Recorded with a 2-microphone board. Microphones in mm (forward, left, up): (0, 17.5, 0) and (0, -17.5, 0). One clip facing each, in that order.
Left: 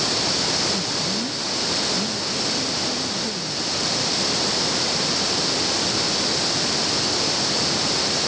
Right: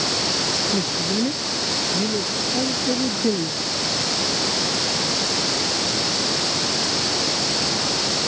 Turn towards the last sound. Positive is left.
turn(degrees=-60)  # may be behind; listen again after turning